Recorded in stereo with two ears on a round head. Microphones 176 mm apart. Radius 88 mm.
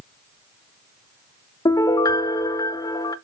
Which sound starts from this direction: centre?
A piano, at 1.6 s.